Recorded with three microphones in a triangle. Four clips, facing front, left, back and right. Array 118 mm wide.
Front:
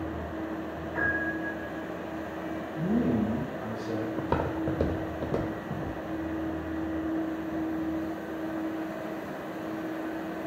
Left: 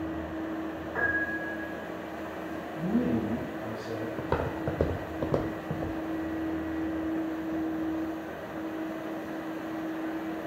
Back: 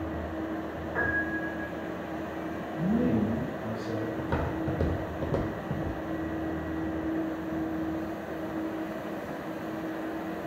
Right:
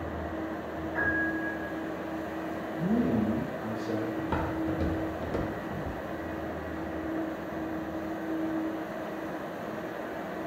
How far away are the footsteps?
About 0.6 m.